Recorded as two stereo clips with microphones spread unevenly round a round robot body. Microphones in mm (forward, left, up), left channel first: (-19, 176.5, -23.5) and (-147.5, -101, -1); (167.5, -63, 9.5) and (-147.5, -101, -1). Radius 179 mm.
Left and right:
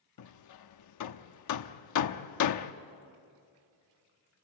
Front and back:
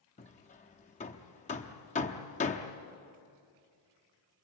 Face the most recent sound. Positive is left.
turn(degrees=75)